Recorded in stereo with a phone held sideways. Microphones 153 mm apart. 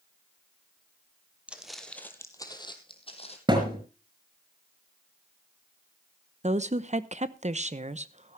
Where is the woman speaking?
50° right (ahead or behind), 0.9 m.